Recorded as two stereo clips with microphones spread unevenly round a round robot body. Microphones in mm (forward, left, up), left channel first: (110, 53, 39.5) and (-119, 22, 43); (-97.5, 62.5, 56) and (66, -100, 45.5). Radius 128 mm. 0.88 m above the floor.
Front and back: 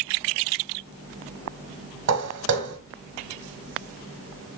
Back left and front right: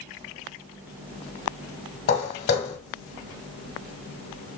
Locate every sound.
2.1 s footsteps: 170° left, 1.5 m